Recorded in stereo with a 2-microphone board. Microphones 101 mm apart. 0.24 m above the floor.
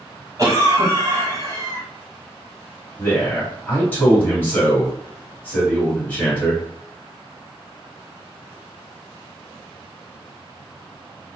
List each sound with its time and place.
0.4 s a cough: 35° right (ahead or behind), 1.2 m
3.0 s a man speaking: 20° left (ahead or behind), 1.7 m